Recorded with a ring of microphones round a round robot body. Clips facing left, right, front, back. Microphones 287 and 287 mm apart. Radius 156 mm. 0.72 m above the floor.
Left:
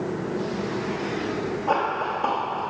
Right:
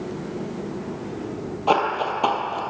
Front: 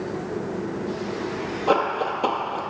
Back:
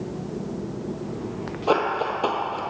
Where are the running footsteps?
90° right, 1.1 m.